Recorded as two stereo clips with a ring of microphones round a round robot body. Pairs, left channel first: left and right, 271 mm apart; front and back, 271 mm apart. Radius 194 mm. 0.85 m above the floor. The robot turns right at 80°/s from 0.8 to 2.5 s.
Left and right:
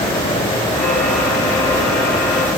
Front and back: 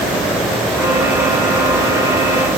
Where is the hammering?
No hammering in this recording.